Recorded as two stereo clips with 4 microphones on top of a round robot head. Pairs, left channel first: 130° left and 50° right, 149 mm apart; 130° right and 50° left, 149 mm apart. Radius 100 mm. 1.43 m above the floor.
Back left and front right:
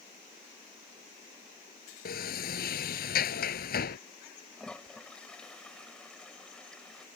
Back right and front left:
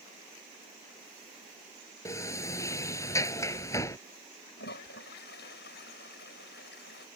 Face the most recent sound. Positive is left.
turn(degrees=-145)